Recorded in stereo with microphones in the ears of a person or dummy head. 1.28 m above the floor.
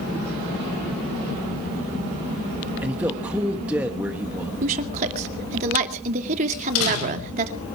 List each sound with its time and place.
2.8 s a man speaking: 10° right (ahead or behind), 2.0 m
4.6 s a woman speaking: 45° right (ahead or behind), 2.5 m
6.5 s a door slam: 90° left, 5.5 m